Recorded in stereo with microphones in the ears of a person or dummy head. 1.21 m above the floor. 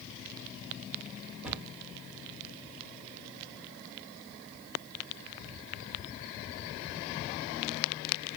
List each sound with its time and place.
1.4 s a cupboard door: 5° right (ahead or behind), 0.9 m